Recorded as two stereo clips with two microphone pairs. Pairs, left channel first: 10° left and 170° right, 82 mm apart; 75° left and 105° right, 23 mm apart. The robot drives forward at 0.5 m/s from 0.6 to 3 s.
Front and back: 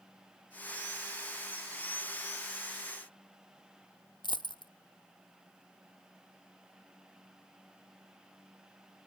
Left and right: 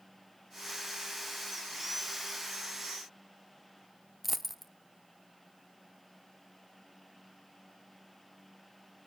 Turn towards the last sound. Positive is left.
turn(degrees=-15)